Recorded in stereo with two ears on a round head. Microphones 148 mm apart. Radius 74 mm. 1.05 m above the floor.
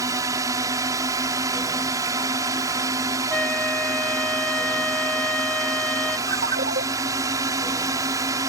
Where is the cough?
No cough in this recording.